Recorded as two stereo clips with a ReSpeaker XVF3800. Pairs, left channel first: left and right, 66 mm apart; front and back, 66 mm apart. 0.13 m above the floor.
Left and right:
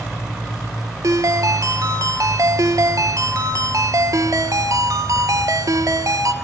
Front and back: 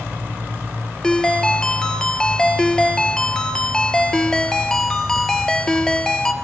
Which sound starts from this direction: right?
A ringtone, at 1.0 s.